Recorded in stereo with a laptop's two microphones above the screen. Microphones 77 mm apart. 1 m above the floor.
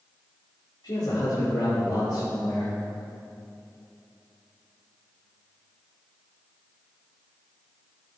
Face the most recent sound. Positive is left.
turn(degrees=60)  # may be behind; listen again after turning